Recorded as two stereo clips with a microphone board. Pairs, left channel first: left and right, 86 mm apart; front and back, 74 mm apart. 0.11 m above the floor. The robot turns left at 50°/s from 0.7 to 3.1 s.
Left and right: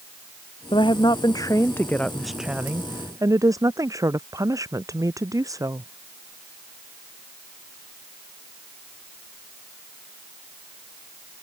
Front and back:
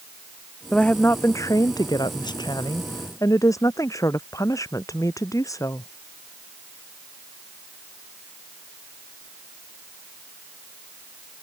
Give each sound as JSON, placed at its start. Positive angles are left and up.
{"t": 0.7, "sound": "a woman speaking", "azimuth_deg": 80}